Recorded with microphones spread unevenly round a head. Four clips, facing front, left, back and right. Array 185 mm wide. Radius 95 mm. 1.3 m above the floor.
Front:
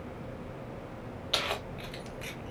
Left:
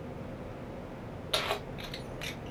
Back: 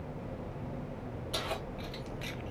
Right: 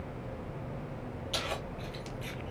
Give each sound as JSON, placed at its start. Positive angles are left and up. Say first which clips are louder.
{"t": 1.3, "sound": "keys jangling", "louder": "left 4 dB, front 3 dB", "azimuth_deg": 45, "distance_m": 1.4}